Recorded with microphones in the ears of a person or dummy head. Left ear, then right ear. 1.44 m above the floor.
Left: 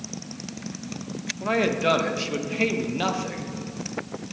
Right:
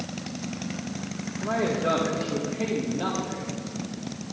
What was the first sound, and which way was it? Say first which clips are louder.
A man speaking: left 3 dB; 65° left (ahead or behind).